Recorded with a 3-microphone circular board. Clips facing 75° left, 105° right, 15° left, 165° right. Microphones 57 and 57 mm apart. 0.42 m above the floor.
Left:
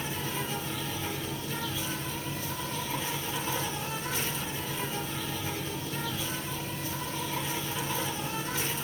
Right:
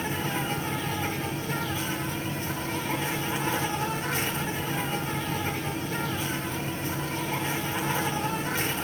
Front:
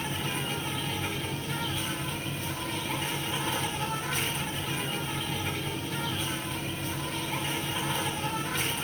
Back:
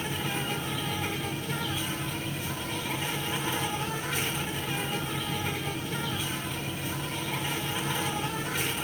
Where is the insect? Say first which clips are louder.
Right 5 dB, back 1 dB; 80° right, 2 m.